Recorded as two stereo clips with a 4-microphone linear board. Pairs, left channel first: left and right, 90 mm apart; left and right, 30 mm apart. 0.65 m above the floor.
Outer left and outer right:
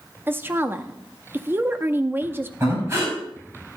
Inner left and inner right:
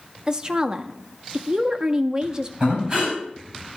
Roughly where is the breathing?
Right.